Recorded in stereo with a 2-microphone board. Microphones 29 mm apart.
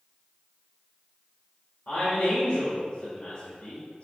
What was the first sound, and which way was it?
A man speaking, 55° left (ahead or behind).